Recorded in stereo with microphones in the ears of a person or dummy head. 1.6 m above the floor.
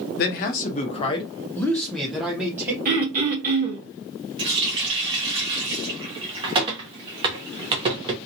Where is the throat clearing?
45° right (ahead or behind), 1.3 m.